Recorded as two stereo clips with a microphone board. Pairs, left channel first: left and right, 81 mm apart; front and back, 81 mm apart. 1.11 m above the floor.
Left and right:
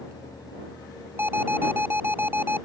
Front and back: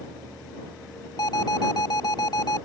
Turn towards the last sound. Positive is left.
turn(degrees=-30)